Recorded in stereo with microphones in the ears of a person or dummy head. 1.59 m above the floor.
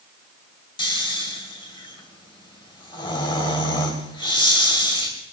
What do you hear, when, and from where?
0.8 s snoring: 25° left (ahead or behind), 1.5 m